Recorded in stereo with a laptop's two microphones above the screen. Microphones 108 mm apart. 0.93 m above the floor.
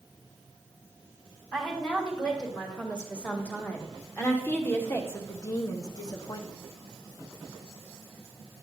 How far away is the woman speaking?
About 3 m.